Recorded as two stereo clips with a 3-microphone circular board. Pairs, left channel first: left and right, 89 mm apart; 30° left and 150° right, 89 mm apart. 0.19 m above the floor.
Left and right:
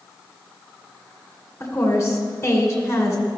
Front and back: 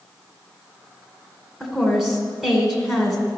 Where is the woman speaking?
125° left, 1.8 m.